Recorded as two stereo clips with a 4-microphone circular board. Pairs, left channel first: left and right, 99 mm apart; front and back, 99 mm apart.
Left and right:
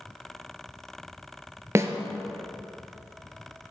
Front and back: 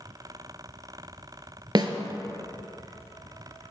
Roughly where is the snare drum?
Behind right.